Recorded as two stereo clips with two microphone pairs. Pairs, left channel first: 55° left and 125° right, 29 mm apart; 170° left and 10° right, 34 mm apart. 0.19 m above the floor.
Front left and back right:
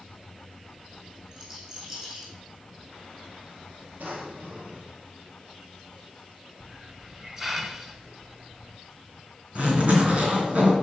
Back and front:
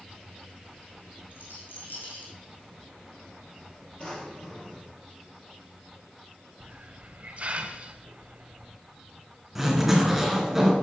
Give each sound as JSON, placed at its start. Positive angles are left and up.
{"t": 1.3, "sound": "a rattle", "azimuth_deg": 165, "distance_m": 3.5}
{"t": 4.0, "sound": "a drawer", "azimuth_deg": -130, "distance_m": 3.0}
{"t": 6.6, "sound": "a hiss", "azimuth_deg": -55, "distance_m": 1.0}
{"t": 9.6, "sound": "a zipper", "azimuth_deg": -95, "distance_m": 3.0}